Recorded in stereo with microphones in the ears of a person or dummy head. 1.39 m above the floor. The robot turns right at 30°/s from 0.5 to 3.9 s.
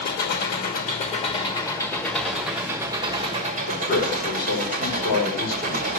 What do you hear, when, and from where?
0.0 s an engine running: 125° left, 1.2 m; by 6.0 s 135° right, 1.2 m
3.7 s a man speaking: 60° left (ahead or behind), 4 m; by 6.0 s 55° left (ahead or behind), 4 m